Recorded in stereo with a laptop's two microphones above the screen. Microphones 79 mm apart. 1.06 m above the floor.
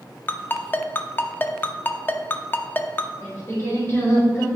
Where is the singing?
35° left (ahead or behind), 3 m.